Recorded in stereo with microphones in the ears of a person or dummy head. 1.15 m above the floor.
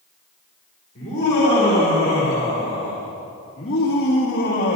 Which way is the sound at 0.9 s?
40° left (ahead or behind).